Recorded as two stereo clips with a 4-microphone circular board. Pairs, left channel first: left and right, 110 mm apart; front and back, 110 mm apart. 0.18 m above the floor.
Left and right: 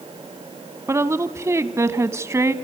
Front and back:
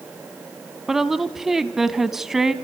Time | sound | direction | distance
0.9 | a woman speaking | 100° right | 1.1 m